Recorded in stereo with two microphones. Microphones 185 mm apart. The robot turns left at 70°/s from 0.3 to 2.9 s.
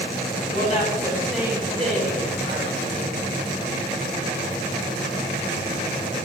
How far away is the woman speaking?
About 4 m.